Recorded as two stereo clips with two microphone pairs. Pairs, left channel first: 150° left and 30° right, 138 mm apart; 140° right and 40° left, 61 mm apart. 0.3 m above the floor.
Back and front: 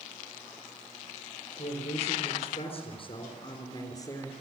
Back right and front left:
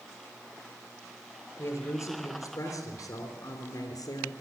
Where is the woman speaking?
175° left, 5 m; by 4.3 s 145° right, 3.5 m.